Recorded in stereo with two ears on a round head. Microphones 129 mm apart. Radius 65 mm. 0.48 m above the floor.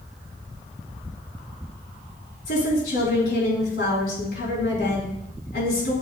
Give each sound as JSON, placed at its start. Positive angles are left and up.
{"t": 2.5, "sound": "a woman speaking", "side_deg": 75, "distance_m": 6.0}